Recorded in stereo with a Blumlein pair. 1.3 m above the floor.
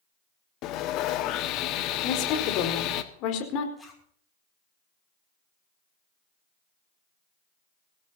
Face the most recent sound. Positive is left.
turn(degrees=10)